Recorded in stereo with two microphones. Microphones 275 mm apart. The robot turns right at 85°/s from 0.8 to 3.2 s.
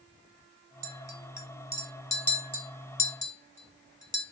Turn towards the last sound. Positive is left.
turn(degrees=25)  # may be behind; listen again after turning